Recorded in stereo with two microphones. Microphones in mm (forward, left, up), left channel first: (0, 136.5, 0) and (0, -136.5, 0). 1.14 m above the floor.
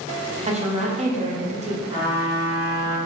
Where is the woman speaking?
25° right (ahead or behind), 0.6 m.